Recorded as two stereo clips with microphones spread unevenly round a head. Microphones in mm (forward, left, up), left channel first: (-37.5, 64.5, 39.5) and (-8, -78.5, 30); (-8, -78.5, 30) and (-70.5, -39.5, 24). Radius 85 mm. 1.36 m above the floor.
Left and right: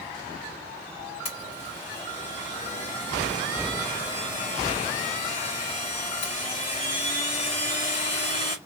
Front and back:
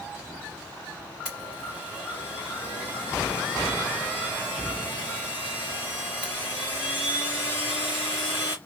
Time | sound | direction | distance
1.2 | a blender | 50° left | 2.5 m